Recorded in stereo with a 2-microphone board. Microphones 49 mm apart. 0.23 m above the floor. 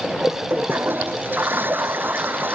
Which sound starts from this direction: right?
A toilet flushing, at 0.5 s.